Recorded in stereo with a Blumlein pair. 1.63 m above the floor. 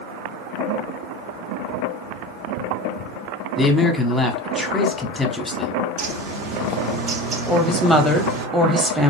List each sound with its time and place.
3.6 s a man speaking: 5° left, 0.9 m
6.0 s a bird: 45° right, 0.7 m
7.5 s a woman speaking: 5° right, 0.9 m